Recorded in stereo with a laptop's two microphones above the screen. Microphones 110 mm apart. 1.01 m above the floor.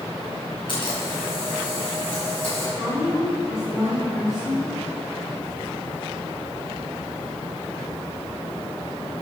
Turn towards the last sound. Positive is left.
turn(degrees=-5)  # may be behind; listen again after turning